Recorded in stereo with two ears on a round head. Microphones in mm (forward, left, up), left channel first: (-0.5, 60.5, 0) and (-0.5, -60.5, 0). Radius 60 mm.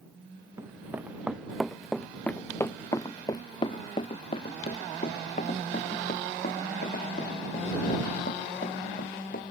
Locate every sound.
0.6 s running footsteps: 20° right (ahead or behind); by 9.5 s 75° left (ahead or behind)